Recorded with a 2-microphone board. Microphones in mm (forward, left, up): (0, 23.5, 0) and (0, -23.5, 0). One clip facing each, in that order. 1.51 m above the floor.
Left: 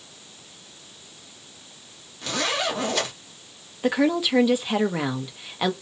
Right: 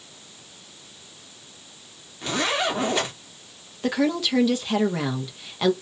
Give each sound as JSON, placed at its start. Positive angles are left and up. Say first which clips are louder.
{"t": 2.2, "sound": "a zipper", "louder": "right 2 dB", "side_deg": -20, "distance_m": 1.1}
{"t": 3.8, "sound": "a woman speaking", "louder": "left 2 dB", "side_deg": 15, "distance_m": 0.6}